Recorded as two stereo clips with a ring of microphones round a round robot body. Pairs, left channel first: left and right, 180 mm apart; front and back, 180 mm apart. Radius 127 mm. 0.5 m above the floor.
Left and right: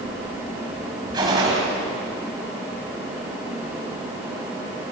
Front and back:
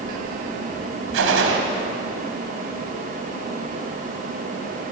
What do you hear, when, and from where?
1.1 s a gunshot: 165° right, 2.5 m